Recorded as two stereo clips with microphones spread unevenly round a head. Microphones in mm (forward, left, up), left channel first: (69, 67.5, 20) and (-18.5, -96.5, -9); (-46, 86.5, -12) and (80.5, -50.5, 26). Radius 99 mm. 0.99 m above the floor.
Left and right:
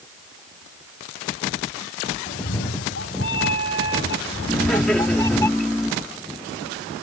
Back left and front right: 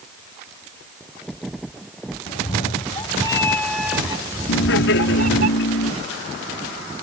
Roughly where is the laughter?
Behind left.